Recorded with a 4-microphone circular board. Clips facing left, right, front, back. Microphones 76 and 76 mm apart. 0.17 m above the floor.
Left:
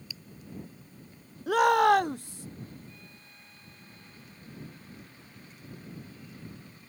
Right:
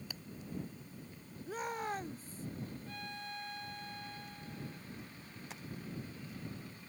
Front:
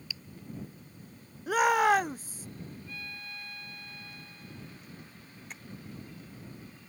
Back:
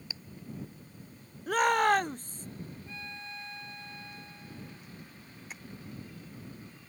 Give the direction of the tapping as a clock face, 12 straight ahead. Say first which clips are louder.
Right 4 dB, even; 3 o'clock.